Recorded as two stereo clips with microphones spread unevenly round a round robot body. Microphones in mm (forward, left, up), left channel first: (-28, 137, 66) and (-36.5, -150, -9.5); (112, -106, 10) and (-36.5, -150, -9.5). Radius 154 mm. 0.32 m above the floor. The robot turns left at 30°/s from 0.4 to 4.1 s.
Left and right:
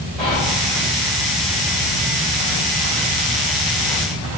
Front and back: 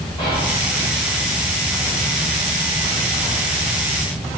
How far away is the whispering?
About 0.9 m.